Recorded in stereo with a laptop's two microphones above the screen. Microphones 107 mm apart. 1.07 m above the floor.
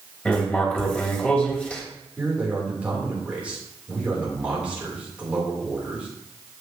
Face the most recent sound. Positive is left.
turn(degrees=-10)  # may be behind; listen again after turning